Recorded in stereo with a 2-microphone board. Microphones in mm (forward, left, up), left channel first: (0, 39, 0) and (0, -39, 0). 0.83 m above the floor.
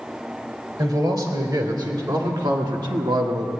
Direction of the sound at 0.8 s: 65° right (ahead or behind).